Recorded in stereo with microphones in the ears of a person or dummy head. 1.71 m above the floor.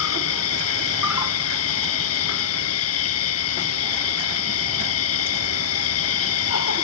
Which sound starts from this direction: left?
An insect, at 0.0 s.